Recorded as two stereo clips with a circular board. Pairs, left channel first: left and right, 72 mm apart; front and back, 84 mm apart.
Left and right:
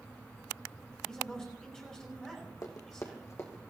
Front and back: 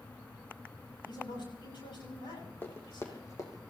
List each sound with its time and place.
1.1 s a man speaking: 10° left, 7 m
2.6 s running footsteps: 60° left, 3 m; by 3.6 s 40° left, 3 m